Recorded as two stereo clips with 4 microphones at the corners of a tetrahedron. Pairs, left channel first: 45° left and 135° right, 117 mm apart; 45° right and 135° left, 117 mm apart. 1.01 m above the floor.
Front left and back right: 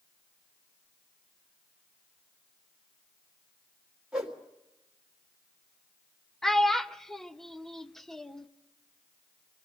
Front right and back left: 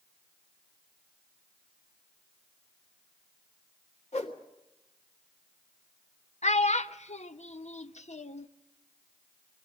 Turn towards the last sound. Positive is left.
turn(degrees=-40)